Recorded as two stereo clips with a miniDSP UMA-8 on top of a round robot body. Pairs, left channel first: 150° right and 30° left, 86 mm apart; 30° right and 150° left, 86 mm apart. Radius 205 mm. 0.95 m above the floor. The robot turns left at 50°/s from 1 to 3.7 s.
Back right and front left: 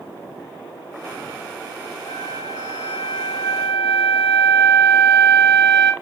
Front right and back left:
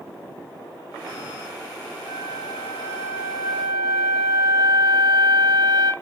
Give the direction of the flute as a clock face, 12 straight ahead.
5 o'clock.